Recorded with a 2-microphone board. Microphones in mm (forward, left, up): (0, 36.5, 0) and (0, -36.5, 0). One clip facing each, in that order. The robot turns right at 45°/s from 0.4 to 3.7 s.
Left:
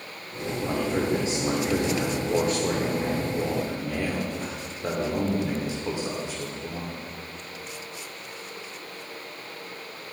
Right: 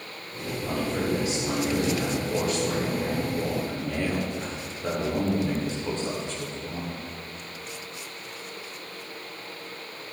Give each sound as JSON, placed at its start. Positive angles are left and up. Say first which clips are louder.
{"t": 0.6, "sound": "a man speaking", "louder": "left 2 dB", "azimuth_deg": 25, "distance_m": 1.6}